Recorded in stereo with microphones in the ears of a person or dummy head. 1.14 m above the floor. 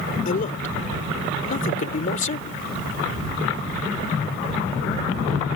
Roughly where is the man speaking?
Left.